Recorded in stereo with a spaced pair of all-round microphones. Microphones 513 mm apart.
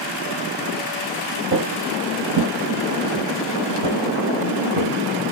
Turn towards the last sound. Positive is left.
turn(degrees=-75)  # may be behind; listen again after turning